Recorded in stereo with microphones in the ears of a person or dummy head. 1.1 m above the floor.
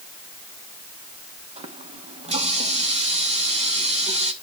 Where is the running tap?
45° right (ahead or behind), 1.2 m.